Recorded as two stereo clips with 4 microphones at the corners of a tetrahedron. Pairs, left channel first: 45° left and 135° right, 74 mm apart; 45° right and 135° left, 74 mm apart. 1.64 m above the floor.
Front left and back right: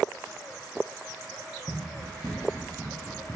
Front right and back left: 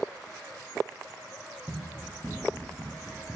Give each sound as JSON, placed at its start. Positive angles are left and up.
{"t": 1.7, "sound": "running footsteps", "azimuth_deg": -160, "distance_m": 1.8}